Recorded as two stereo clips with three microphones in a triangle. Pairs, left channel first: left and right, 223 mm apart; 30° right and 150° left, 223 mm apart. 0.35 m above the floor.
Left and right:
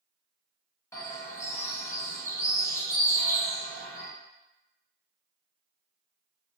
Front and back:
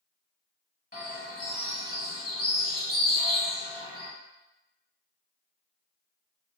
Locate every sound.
0.9 s a bird: 15° left, 0.8 m